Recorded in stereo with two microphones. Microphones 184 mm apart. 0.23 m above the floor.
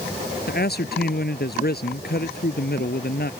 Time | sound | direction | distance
0.5 | a man speaking | 60° left (ahead or behind) | ?